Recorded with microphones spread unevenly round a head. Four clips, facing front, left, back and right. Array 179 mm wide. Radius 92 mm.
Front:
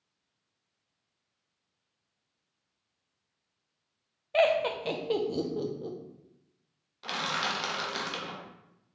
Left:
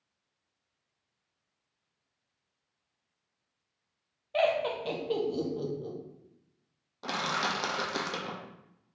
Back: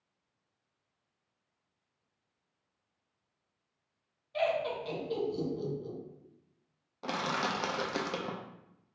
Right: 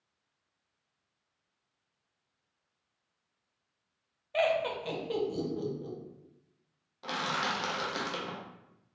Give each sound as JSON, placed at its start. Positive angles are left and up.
{"t": 4.3, "sound": "laughter", "azimuth_deg": 20, "distance_m": 0.7}
{"t": 7.0, "sound": "crushing", "azimuth_deg": 145, "distance_m": 0.6}